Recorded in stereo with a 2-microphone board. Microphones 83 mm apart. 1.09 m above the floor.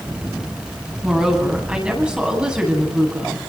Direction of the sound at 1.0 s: 10° right (ahead or behind).